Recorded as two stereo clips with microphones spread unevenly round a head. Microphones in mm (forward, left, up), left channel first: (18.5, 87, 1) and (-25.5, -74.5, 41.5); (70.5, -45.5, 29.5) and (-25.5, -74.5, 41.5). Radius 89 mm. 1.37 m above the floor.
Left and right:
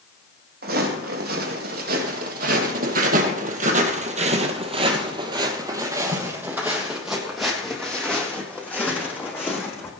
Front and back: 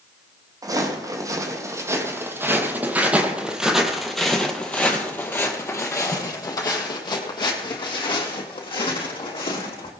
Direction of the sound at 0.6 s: 120° right.